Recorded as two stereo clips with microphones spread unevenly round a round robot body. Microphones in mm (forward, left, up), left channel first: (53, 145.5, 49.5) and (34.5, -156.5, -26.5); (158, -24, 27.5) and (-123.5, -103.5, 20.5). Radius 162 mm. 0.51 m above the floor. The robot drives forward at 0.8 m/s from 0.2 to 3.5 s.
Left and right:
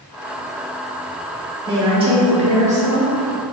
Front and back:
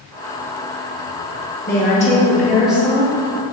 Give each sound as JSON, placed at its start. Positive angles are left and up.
{"t": 1.7, "sound": "a woman speaking", "azimuth_deg": -35, "distance_m": 1.5}